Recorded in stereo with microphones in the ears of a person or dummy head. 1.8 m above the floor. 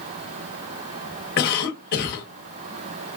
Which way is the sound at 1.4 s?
55° left (ahead or behind).